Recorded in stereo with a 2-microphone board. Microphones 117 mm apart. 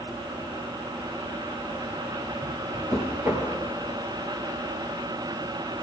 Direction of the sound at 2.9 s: 20° right (ahead or behind).